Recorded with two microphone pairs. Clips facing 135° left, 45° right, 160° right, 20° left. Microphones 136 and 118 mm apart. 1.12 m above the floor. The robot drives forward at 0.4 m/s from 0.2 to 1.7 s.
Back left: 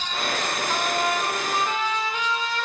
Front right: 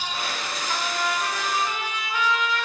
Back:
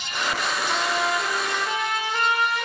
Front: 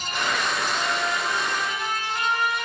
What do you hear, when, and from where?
0.7 s a trumpet: 165° right, 0.7 m; by 2.6 s 170° right, 1.0 m